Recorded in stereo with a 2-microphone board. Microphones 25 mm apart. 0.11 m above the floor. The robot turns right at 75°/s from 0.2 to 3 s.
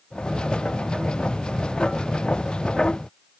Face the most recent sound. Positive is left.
No sound to turn to.